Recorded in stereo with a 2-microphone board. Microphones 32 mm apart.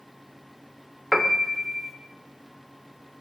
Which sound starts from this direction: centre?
A piano, at 1.1 s.